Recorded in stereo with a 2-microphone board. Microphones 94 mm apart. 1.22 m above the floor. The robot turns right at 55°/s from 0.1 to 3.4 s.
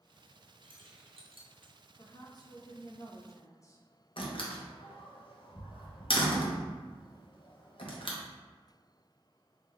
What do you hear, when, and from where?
0.6 s keys jangling: 55° right (ahead or behind), 0.7 m
2.0 s a woman speaking: 55° left, 0.7 m; by 3.9 s 135° left, 0.7 m
4.2 s a door slam: 65° left (ahead or behind), 0.7 m